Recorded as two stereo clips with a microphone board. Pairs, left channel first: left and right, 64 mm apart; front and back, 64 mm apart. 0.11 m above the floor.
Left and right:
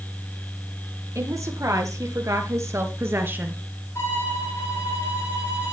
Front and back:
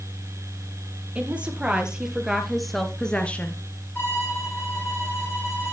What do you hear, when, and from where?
1.1 s a woman speaking: 115° right, 3 m; by 3.6 s 40° right, 1.7 m
4.0 s a violin: 55° left, 5.5 m